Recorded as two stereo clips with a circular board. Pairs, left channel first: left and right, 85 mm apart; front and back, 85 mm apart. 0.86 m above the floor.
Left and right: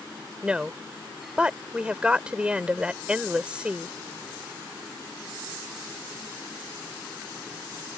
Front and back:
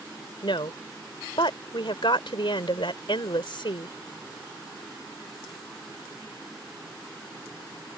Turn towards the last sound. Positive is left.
turn(degrees=-15)